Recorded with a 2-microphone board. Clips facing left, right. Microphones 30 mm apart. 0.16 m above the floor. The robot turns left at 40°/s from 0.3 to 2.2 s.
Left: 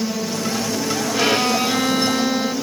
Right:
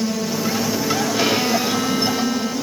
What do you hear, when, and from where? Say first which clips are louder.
1.1 s a violin: left 3 dB; straight behind, 2.5 m; by 2.5 s 140° left, 2.5 m